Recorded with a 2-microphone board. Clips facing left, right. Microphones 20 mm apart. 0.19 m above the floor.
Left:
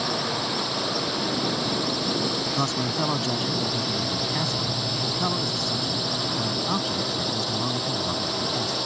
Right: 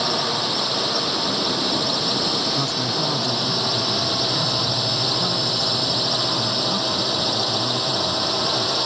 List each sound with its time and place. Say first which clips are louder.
0.0 s a drone: right 5 dB; 30° right (ahead or behind)
2.5 s a man speaking: right 3 dB; 20° left (ahead or behind)